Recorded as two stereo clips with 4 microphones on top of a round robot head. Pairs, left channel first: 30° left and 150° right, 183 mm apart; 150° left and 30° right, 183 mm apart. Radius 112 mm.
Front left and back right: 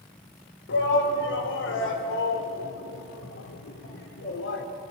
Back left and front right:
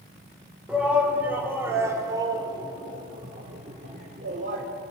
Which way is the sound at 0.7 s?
55° left.